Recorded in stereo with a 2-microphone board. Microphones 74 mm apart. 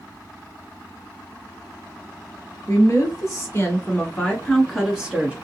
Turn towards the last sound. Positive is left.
turn(degrees=-20)  # may be behind; listen again after turning